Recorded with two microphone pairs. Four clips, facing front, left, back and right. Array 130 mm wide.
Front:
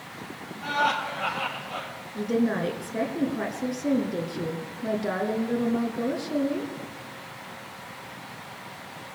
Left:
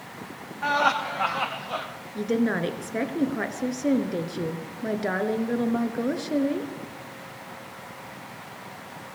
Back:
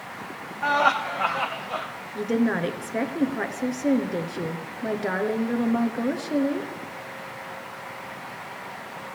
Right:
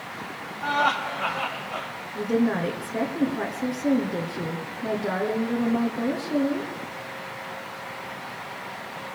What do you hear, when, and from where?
0.6 s laughter: 140° left, 4.5 m; by 1.9 s 130° left, 3.5 m
2.1 s a woman speaking: 140° left, 1.2 m